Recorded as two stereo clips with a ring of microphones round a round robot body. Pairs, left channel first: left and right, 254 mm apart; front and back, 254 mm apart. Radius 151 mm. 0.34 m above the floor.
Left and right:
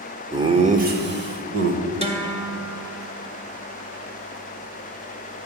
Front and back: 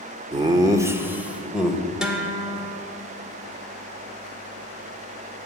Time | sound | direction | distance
0.3 | laughter | 145° right | 0.9 m
2.0 | a guitar | 95° right | 1.6 m